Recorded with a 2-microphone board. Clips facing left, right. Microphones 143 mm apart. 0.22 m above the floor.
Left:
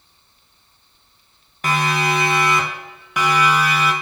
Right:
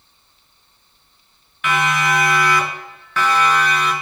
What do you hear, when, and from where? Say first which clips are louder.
1.6 s a siren: right 1 dB; 40° left (ahead or behind), 4 m; by 3.9 s 5° left (ahead or behind), 4.5 m